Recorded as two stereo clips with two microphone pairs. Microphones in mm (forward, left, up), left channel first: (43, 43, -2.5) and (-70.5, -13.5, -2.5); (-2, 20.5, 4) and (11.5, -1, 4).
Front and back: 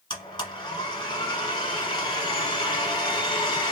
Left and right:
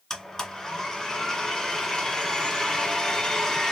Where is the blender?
65° left, 1.3 m.